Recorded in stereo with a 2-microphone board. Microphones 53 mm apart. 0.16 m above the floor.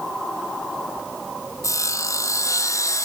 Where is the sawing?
80° left, 1.4 m.